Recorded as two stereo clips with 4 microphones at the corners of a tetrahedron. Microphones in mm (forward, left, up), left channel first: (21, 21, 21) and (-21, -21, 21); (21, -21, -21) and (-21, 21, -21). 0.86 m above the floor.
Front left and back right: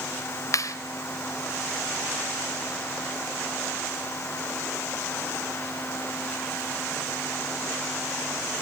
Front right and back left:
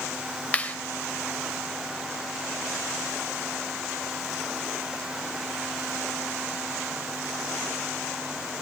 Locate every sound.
0.5 s a clap: 20° left, 2.5 m